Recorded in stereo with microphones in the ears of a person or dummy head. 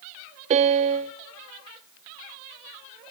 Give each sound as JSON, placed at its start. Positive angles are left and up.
{"t": 0.5, "sound": "a piano", "side_deg": -35, "distance_m": 0.6}